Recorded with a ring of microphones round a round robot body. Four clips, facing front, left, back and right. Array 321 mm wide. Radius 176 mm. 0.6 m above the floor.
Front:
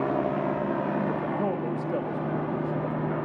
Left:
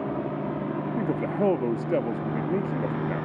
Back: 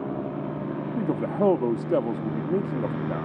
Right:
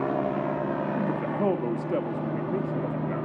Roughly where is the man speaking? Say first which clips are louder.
Left 1 dB, back 2 dB; behind left.